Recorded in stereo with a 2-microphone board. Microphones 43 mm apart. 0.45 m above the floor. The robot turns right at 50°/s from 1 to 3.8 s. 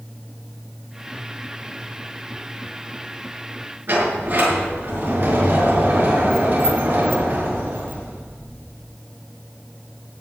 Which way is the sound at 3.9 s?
50° right (ahead or behind).